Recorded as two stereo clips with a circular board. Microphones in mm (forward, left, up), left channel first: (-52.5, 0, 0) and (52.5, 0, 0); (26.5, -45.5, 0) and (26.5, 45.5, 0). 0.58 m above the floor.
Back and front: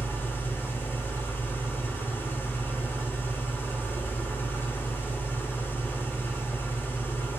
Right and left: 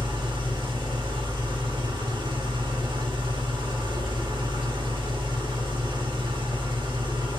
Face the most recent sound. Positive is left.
turn(degrees=110)